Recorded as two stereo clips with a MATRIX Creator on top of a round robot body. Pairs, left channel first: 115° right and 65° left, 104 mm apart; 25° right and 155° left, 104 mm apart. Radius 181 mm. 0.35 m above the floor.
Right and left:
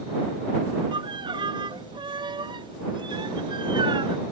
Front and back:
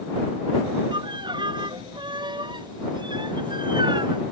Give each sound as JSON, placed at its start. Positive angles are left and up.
{"t": 0.9, "sound": "a violin", "azimuth_deg": 110}